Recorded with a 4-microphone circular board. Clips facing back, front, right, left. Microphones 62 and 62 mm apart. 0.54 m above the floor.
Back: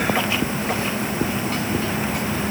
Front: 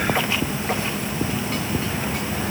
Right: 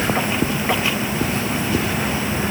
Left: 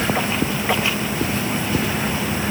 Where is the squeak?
I don't hear a squeak.